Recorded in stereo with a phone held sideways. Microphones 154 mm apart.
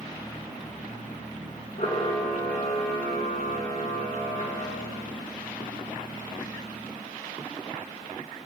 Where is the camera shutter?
65° left (ahead or behind), 2 m.